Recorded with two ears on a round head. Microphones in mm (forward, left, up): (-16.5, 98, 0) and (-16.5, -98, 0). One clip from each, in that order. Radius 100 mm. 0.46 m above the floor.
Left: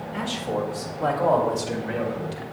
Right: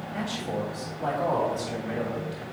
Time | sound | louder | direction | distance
0.1 | a man speaking | left 4 dB | 30° left (ahead or behind) | 1.9 m